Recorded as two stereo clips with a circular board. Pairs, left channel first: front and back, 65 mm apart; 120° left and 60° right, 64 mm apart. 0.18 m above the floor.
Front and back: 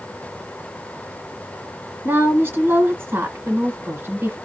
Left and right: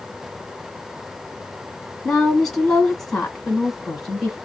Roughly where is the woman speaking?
Behind.